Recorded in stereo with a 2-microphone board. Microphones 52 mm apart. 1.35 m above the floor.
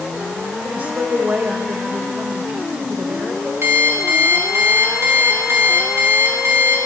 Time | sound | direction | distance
0.6 | a woman speaking | 35° right (ahead or behind) | 4.5 m
3.6 | an alarm clock | 60° right (ahead or behind) | 6.5 m